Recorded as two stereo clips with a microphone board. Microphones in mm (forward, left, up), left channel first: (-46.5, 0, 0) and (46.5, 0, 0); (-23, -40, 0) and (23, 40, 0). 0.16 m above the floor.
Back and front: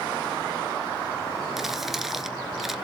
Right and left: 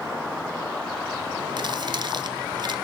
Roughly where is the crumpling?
Left.